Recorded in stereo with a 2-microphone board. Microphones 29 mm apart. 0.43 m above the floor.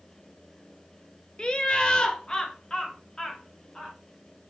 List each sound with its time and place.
1.4 s laughter: 30° left (ahead or behind), 1.2 m